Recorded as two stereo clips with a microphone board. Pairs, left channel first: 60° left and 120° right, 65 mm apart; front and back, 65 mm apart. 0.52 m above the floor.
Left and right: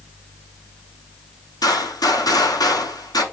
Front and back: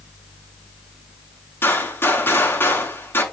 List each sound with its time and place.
1.6 s a gunshot: 55° left, 6 m